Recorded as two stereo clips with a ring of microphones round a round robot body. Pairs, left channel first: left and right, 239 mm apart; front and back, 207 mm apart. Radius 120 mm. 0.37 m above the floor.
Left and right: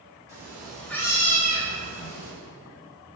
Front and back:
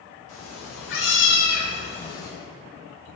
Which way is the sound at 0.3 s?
15° right.